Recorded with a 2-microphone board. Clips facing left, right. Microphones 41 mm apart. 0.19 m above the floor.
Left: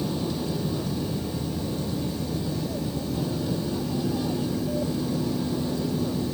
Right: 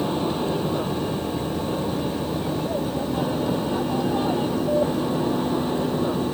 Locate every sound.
0.0 s an aircraft: 40° right (ahead or behind)